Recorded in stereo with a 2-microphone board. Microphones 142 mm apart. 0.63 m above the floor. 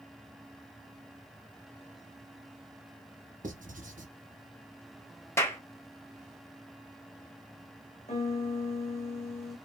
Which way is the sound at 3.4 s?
70° right (ahead or behind).